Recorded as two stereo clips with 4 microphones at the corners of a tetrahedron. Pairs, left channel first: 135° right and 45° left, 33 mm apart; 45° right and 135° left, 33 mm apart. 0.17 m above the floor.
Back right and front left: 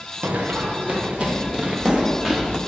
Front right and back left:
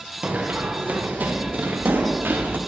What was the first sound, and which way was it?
Running footsteps, 80° left.